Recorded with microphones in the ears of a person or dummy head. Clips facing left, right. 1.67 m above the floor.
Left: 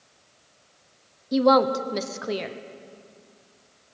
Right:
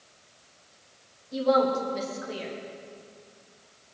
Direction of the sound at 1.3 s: 75° left (ahead or behind).